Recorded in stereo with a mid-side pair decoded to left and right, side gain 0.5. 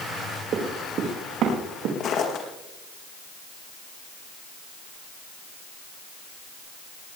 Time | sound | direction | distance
0.5 | running footsteps | 55° right | 4.5 m
2.0 | footsteps | 60° left | 4 m